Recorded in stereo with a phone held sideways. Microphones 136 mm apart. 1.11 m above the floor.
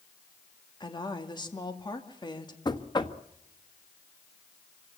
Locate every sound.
0.8 s a woman speaking: 35° left (ahead or behind), 2.5 m
2.6 s knocking: 35° left (ahead or behind), 1.3 m